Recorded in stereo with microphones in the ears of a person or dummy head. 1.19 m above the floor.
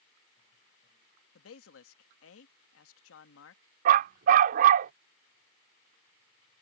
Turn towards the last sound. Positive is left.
turn(degrees=-40)  # may be behind; listen again after turning